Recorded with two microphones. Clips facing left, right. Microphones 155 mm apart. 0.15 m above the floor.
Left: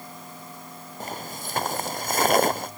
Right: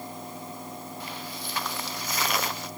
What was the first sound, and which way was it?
Footsteps, 45° left (ahead or behind).